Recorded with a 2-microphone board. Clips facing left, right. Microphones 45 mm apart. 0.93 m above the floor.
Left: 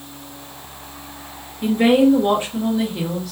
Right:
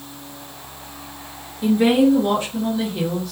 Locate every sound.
1.6 s a woman speaking: 45° left (ahead or behind), 1.2 m; by 3.3 s 5° right (ahead or behind), 0.9 m